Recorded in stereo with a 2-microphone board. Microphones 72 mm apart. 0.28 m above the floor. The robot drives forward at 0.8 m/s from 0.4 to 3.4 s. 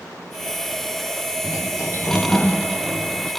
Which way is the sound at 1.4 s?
55° left (ahead or behind).